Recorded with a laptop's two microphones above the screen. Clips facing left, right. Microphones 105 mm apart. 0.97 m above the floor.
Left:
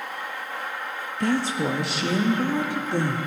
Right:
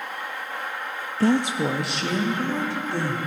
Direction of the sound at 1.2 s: 35° right (ahead or behind).